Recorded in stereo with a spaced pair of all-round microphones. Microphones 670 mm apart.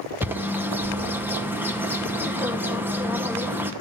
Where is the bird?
5° right (ahead or behind), 0.9 m.